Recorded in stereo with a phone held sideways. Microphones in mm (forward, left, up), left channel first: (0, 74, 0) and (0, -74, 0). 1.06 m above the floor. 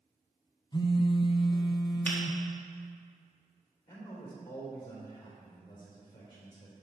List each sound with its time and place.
0.7 s a phone buzzing: 30° left (ahead or behind), 0.7 m
2.0 s a finger snap: 10° left (ahead or behind), 1.8 m
3.9 s a man speaking: 30° left (ahead or behind), 3.5 m